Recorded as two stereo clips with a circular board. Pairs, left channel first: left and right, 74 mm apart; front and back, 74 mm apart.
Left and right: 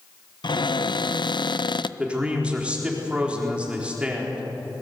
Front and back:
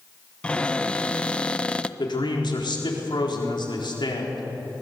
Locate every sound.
0.4 s a cupboard door: 75° left, 0.5 m
2.0 s a man speaking: 15° right, 4 m